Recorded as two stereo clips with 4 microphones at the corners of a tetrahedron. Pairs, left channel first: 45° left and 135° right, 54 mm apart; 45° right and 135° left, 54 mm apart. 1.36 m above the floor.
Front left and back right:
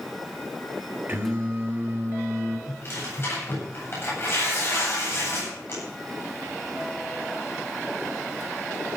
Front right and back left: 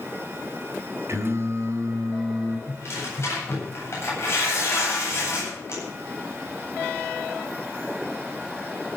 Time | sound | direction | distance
1.1 | singing | 170° left | 4 m
2.7 | tearing paper | straight ahead | 9 m